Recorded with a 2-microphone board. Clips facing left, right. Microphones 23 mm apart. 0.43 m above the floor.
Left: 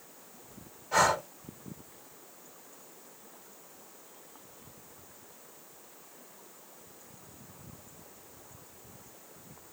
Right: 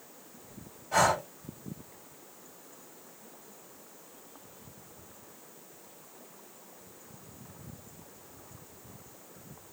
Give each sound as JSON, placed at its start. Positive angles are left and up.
{"t": 0.9, "sound": "breathing", "side_deg": 25, "distance_m": 1.5}